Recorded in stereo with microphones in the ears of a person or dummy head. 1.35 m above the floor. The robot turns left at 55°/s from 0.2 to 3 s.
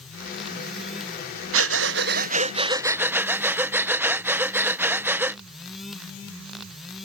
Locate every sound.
1.5 s breathing: 85° right; by 5.4 s 170° right